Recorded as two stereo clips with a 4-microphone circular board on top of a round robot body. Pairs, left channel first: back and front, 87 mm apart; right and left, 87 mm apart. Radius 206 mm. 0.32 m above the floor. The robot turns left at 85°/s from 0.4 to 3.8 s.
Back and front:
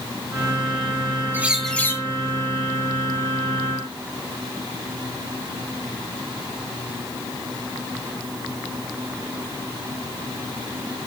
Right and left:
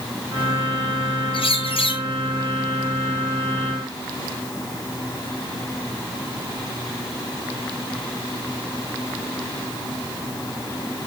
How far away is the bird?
About 1.3 m.